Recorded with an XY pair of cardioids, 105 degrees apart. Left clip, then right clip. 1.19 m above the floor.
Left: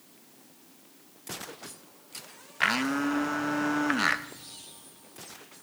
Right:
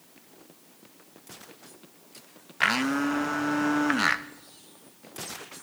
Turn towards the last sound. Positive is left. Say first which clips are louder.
# right 2 dB
turn(degrees=-10)